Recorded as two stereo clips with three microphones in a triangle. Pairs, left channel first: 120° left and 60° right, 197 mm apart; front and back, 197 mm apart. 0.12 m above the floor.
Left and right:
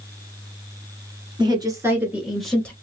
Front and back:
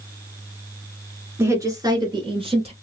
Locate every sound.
1.4 s a woman speaking: 110° right, 1.4 m; by 2.7 s 165° right, 1.3 m